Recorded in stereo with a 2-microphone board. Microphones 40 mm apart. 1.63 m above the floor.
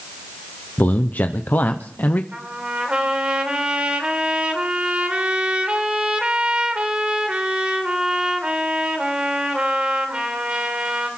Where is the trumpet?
25° right (ahead or behind), 2.5 m.